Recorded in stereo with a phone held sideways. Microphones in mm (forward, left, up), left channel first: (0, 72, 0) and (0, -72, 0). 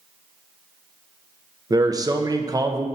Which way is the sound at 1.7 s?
25° right (ahead or behind).